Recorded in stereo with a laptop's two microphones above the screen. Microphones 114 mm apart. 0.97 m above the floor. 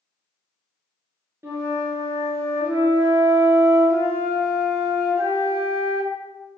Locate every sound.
1.4 s a flute: 25° right (ahead or behind), 0.7 m